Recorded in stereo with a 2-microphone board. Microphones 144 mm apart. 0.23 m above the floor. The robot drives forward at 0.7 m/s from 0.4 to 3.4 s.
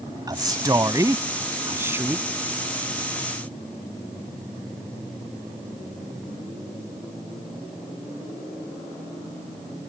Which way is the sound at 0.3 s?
25° right (ahead or behind).